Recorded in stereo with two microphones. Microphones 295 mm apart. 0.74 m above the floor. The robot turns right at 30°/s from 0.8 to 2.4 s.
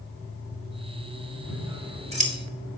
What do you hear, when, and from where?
1.5 s scissors: 5° right (ahead or behind), 2.5 m; by 2.3 s 25° right (ahead or behind), 2.5 m